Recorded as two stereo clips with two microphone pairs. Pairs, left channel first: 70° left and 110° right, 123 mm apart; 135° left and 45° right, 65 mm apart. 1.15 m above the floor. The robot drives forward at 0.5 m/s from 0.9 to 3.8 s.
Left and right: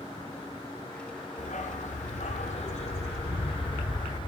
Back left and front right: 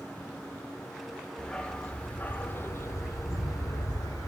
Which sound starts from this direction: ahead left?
A dog barking, at 1.4 s.